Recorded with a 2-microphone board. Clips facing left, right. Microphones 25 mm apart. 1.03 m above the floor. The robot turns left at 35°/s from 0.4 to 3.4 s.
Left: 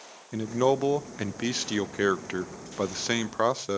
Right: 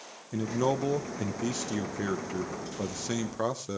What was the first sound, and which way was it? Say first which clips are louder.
A man speaking: left 4 dB; 150° left.